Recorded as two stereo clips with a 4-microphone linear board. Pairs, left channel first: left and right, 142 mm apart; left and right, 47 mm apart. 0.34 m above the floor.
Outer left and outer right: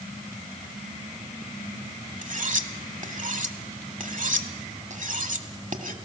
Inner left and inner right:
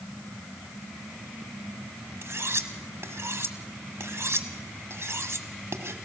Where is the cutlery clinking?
65° right (ahead or behind), 1.3 m.